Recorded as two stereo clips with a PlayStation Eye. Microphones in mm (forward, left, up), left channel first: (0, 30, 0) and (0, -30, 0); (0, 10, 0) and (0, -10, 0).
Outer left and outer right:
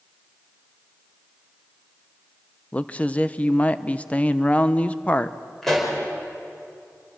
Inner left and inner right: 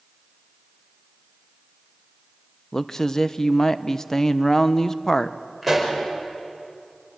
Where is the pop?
5° left (ahead or behind), 5 m.